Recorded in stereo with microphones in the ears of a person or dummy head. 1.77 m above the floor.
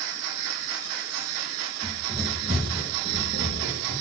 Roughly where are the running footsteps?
Centre.